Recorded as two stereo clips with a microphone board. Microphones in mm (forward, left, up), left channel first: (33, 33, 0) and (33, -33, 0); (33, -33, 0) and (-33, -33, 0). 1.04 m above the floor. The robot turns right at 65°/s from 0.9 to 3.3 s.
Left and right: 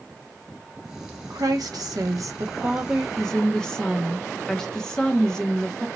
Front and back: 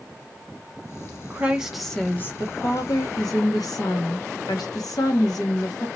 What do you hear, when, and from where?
1.3 s a woman speaking: 120° right, 1.1 m; by 5.9 s 10° left, 1.1 m